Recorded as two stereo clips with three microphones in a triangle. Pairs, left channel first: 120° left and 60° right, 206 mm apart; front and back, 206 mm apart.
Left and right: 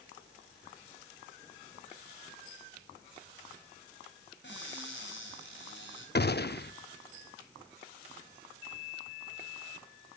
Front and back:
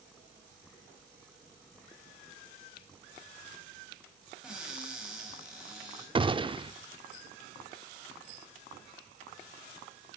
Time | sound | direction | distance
4.4 | a cupboard door | 95° left | 4 m
6.2 | a gunshot | 125° left | 0.6 m